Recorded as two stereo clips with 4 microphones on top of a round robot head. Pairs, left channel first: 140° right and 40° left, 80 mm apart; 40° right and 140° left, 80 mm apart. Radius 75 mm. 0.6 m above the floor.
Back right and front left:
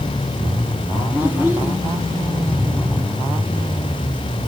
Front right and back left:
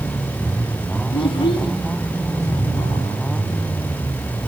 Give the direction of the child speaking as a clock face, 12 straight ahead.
1 o'clock.